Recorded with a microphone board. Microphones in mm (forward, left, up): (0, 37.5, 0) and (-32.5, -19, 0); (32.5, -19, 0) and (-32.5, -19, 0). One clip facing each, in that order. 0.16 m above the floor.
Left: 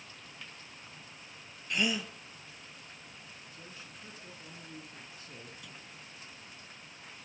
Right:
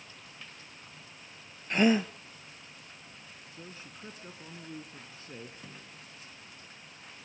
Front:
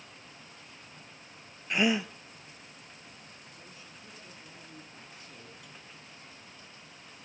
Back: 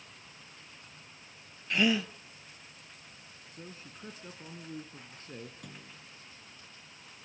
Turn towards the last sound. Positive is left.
turn(degrees=-170)